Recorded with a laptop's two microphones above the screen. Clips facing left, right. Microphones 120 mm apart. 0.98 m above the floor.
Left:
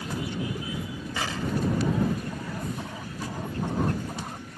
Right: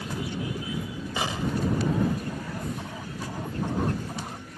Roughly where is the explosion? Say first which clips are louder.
Right 1 dB; right.